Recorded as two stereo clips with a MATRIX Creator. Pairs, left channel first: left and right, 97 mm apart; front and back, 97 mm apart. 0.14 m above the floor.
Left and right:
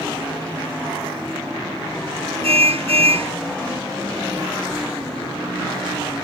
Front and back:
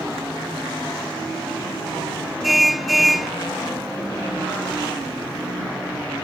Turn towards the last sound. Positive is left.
turn(degrees=-90)